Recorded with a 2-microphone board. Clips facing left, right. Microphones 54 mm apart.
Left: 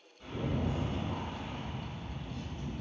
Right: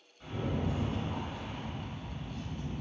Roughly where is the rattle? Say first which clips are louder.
Even; centre.